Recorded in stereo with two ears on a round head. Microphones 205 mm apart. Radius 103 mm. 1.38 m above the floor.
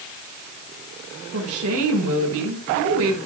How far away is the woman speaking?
About 5.5 m.